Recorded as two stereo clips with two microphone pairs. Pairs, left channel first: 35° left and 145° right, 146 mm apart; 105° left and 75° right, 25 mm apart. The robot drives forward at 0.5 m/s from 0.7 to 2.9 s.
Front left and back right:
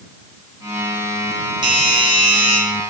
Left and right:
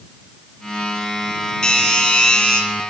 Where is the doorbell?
160° left, 4 m; by 2.6 s 165° left, 4.5 m.